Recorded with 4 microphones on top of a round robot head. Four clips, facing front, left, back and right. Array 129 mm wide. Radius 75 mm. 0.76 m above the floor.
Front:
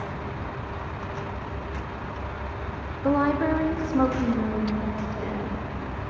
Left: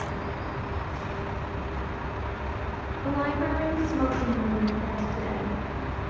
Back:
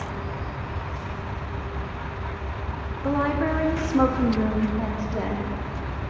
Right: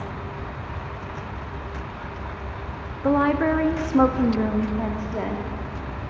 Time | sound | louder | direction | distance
3.0 | a woman speaking | right 8 dB, front 2 dB | 60° right | 1.0 m